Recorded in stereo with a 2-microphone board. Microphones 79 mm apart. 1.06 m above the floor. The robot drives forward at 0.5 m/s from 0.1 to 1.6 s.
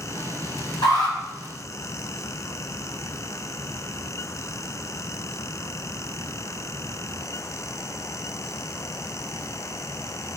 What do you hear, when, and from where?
0.8 s an alarm: 65° left (ahead or behind), 2.5 m; by 1.1 s 60° left (ahead or behind), 2.5 m